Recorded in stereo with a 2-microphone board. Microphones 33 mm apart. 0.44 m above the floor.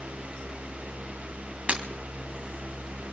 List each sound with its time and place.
1.7 s breaking glass: 40° right (ahead or behind), 2 m